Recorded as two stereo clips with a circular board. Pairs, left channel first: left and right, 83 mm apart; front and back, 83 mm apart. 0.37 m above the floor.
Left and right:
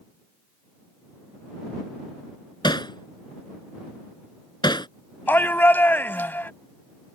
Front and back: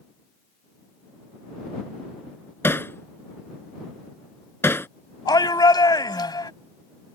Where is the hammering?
60° left.